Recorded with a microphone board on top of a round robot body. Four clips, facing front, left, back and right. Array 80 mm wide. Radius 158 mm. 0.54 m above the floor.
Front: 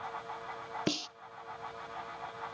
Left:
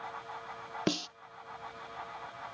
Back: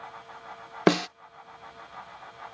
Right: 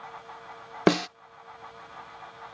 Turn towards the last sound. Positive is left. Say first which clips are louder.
# right 11 dB, back 14 dB
turn(degrees=-135)